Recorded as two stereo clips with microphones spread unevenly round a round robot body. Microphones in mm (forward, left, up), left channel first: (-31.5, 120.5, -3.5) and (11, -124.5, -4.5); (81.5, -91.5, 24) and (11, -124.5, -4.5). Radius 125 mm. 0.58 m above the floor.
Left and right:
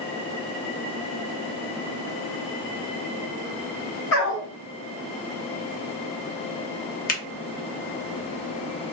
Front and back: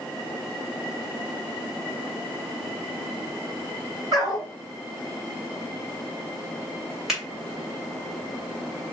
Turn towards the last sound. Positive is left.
turn(degrees=145)